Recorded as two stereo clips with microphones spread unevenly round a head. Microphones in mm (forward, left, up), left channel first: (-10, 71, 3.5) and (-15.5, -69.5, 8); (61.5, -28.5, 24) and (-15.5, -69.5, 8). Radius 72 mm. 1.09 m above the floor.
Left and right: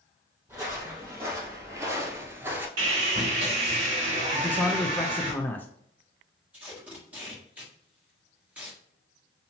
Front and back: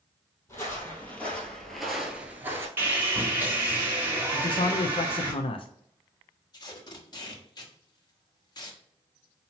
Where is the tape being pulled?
10° right, 1.3 m.